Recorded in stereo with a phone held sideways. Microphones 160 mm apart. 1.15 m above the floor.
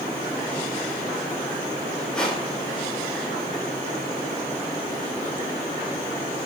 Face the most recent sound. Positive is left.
turn(degrees=5)  # may be behind; listen again after turning